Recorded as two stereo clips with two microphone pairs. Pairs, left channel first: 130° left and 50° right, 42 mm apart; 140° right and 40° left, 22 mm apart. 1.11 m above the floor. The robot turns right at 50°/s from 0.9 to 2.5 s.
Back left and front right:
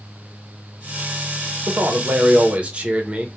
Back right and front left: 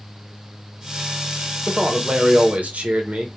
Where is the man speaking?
30° right, 0.7 m; by 3.4 s 10° left, 0.7 m.